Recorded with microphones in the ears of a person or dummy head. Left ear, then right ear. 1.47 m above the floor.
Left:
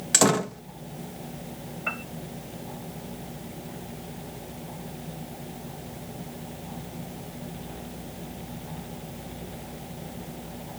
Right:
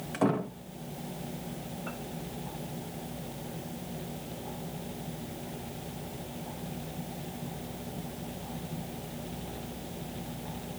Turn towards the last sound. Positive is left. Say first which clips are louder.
# left 12 dB
turn(degrees=65)  # may be behind; listen again after turning